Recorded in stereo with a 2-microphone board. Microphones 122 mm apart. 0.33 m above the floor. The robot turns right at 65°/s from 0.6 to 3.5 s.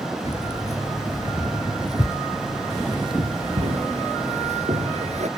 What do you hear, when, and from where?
0.2 s keys jangling: 60° left (ahead or behind); by 5.3 s 65° right (ahead or behind)